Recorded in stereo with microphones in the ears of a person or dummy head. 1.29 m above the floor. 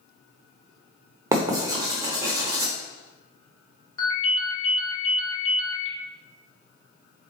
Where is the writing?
10° right (ahead or behind), 0.8 m.